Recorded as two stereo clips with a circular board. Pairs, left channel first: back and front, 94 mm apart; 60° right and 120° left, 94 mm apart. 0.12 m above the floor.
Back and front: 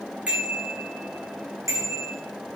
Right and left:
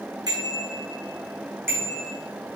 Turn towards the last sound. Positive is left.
turn(degrees=50)